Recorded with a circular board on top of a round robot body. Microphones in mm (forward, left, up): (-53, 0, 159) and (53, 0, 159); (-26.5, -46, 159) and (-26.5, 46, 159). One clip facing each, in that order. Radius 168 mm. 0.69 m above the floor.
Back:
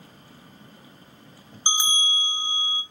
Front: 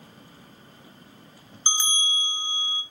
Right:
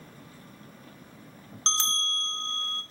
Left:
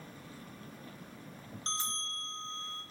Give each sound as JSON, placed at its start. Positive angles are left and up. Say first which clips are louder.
{"t": 1.7, "sound": "a bell", "louder": "back 2 dB, right 8 dB", "azimuth_deg": -105, "distance_m": 0.6}